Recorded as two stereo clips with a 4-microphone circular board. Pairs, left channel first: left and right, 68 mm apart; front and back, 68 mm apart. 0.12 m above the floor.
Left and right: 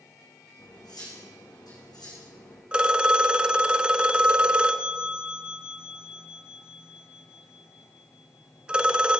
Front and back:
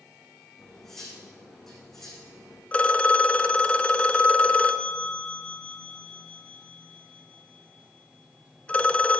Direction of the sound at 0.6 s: 85° left.